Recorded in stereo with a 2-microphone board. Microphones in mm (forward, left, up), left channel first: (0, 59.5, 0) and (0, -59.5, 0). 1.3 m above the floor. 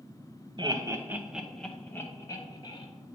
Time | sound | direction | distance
0.6 | laughter | 40° right (ahead or behind) | 0.8 m